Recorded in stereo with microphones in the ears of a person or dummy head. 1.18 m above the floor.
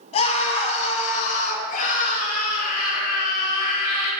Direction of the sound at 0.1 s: 35° left (ahead or behind).